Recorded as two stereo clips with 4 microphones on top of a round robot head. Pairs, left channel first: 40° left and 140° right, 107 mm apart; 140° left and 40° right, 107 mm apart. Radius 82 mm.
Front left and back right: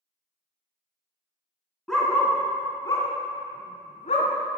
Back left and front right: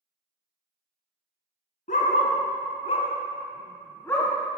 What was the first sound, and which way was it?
A dog barking, 125° left.